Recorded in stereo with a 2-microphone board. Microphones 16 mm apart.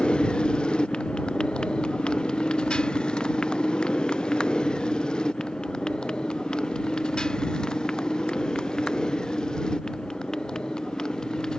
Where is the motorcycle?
85° left; by 11.6 s 55° left (ahead or behind).